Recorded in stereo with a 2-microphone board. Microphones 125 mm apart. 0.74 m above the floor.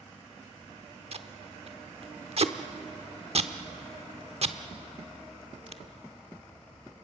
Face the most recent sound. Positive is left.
turn(degrees=-55)  # may be behind; listen again after turning